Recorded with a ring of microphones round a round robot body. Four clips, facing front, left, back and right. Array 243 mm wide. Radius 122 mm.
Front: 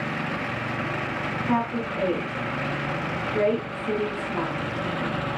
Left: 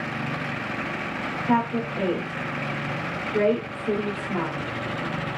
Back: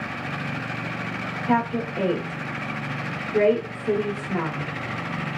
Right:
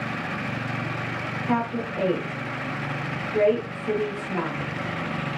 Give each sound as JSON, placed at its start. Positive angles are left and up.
{"t": 1.5, "sound": "a woman speaking", "azimuth_deg": 145, "distance_m": 1.1}